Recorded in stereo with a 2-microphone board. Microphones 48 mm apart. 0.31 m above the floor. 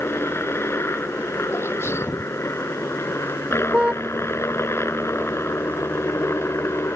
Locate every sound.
0.0 s a helicopter: 60° left (ahead or behind)
1.5 s a sneeze: 60° left (ahead or behind)
3.7 s a car horn: 25° right (ahead or behind)